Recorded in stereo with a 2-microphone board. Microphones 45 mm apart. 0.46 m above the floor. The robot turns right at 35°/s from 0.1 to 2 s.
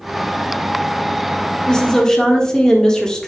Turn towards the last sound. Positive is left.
turn(degrees=20)  # may be behind; listen again after turning